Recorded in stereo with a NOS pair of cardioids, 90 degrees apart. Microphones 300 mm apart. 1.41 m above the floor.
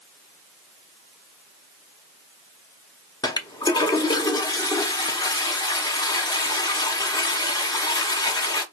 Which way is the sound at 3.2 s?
15° left.